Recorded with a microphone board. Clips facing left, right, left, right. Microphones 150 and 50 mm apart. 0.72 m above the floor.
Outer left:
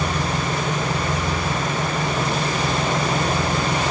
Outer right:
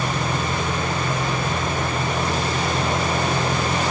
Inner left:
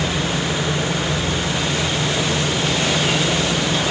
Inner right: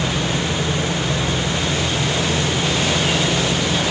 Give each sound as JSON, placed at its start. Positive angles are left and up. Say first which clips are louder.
{"t": 0.0, "sound": "an engine running", "louder": "even, even", "side_deg": 85, "distance_m": 6.5}